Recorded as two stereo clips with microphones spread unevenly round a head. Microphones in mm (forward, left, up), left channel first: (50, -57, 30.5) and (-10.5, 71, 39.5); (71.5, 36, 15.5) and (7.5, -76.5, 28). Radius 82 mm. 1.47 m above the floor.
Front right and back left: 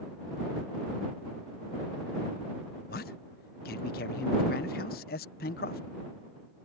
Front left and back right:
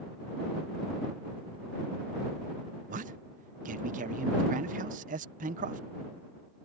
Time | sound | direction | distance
2.9 | a man speaking | 100° right | ?